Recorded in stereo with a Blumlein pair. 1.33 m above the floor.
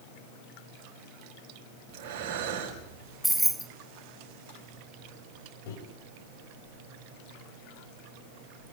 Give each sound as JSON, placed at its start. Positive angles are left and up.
{"t": 1.9, "sound": "breathing", "azimuth_deg": -40, "distance_m": 5.5}
{"t": 3.2, "sound": "keys jangling", "azimuth_deg": -5, "distance_m": 0.7}
{"t": 5.7, "sound": "a microwave", "azimuth_deg": 50, "distance_m": 7.0}